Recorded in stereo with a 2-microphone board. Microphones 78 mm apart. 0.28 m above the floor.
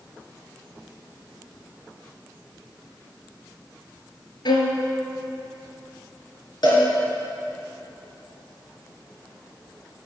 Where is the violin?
70° left (ahead or behind), 1.7 m.